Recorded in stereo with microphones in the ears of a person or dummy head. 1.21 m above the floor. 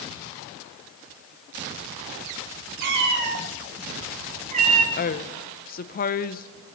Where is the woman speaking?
45° left (ahead or behind), 0.8 m.